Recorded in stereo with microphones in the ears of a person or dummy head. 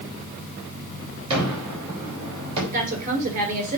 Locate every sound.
1.3 s a gunshot: 35° right (ahead or behind), 4 m
2.7 s a woman speaking: 45° right (ahead or behind), 4.5 m